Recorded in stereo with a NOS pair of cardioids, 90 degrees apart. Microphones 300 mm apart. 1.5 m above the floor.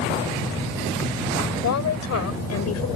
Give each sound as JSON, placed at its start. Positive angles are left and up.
{"t": 1.6, "sound": "a woman speaking", "azimuth_deg": 65}